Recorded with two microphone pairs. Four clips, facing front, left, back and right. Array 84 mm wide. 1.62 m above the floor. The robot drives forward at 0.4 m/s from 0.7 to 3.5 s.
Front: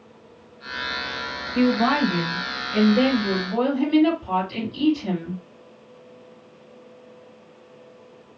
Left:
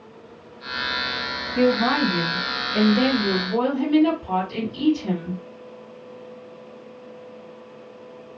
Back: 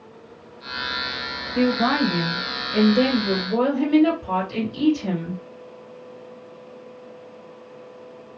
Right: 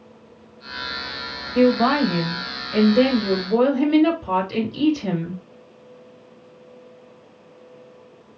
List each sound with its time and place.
1.6 s a woman speaking: 80° right, 1.4 m; by 5.4 s 110° right, 1.5 m